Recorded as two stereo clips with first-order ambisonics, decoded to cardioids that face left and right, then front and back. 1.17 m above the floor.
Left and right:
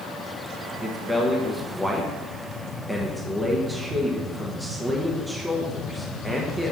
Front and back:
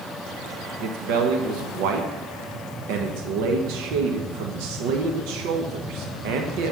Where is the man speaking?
175° right, 0.9 m.